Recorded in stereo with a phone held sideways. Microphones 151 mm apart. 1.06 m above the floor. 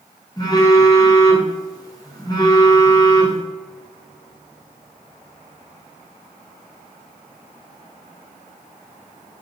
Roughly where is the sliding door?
I don't hear a sliding door.